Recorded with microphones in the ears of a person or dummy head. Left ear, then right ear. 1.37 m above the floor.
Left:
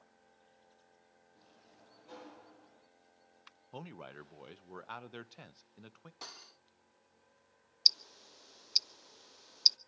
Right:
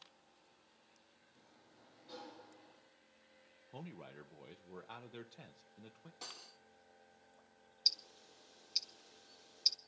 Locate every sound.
1.4 s a sliding door: 35° left (ahead or behind), 7 m
3.7 s a man speaking: 55° left (ahead or behind), 0.9 m
6.2 s cutlery clinking: 40° left (ahead or behind), 1.7 m
7.8 s ticking: 55° left (ahead or behind), 0.9 m